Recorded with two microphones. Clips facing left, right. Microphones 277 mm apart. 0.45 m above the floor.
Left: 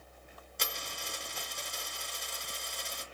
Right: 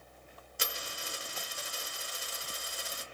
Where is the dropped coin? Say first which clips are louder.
Right 1 dB; 5° right (ahead or behind), 0.5 m.